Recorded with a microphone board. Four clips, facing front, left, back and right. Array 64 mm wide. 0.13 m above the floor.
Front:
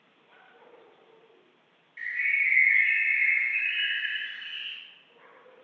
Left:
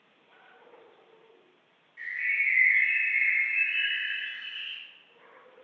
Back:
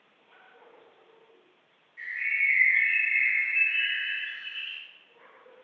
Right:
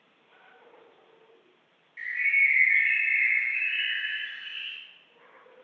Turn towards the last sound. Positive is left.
turn(degrees=-40)